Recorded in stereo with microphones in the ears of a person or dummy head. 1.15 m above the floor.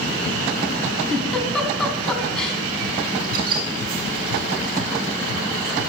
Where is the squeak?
55° right (ahead or behind), 1.5 m.